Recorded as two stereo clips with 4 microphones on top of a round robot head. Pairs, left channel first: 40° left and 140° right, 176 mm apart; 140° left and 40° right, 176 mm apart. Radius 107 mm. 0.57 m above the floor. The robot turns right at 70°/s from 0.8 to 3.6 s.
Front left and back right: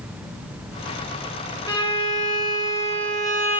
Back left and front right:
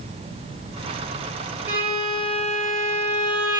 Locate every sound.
1.7 s a violin: 20° left, 1.2 m; by 3.6 s 155° left, 1.2 m